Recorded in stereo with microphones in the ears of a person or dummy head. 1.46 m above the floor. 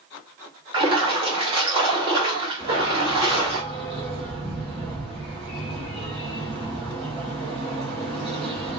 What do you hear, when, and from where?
0.7 s a splash: 30° right (ahead or behind), 1.3 m
2.6 s a dog barking: 30° right (ahead or behind), 1.3 m